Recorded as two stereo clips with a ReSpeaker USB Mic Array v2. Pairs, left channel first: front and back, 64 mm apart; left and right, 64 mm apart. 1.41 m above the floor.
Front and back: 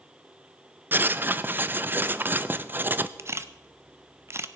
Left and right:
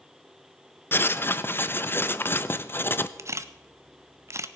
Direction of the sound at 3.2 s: 130° right.